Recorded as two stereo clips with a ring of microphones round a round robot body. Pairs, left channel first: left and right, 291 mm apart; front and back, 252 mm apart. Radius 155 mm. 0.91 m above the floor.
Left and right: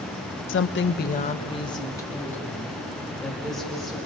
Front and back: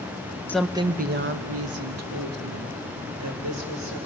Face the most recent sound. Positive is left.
turn(degrees=180)